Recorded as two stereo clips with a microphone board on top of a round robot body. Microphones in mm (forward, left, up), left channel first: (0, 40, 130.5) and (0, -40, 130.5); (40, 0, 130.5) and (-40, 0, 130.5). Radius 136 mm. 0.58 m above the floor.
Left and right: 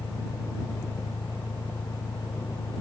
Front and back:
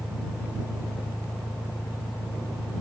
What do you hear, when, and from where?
0.0 s an engine running: 70° left